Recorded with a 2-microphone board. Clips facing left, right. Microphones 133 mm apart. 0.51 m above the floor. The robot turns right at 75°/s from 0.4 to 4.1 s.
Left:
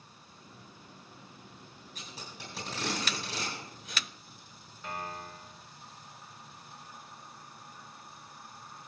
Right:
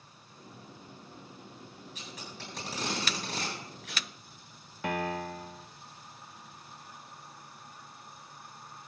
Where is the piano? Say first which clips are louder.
Right 8 dB; 70° right (ahead or behind), 0.6 m.